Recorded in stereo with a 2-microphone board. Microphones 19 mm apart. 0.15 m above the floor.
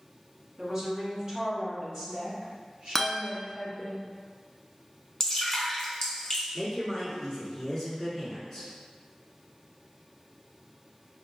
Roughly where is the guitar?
Centre.